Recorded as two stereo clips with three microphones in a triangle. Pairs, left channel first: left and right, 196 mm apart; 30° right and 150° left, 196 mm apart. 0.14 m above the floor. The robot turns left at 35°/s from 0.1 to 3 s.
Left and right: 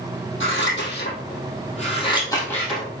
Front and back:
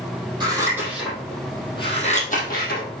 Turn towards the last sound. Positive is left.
turn(degrees=-10)